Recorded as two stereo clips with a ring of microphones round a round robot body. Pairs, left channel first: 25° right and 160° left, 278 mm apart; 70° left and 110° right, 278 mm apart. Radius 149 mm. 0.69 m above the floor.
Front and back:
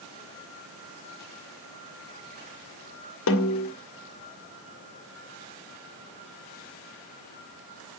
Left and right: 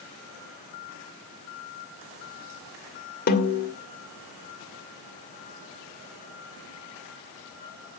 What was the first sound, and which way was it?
A snare drum, 15° left.